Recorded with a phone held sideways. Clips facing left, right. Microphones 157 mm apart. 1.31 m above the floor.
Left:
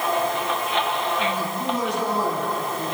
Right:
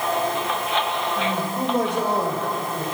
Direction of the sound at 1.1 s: 60° right (ahead or behind).